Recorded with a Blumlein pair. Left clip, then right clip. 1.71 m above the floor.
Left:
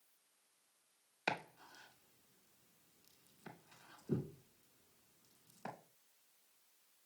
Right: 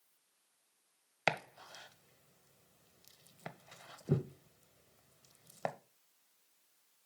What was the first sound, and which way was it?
Chopping, 40° right.